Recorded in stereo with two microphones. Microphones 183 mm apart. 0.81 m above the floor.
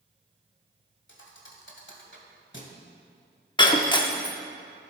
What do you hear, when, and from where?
1.1 s a thud: 75° left (ahead or behind), 1.4 m
3.6 s breaking glass: 25° left (ahead or behind), 0.8 m